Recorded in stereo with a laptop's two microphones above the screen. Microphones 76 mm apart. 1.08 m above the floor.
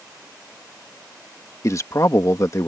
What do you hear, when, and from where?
1.6 s a man speaking: 45° left (ahead or behind)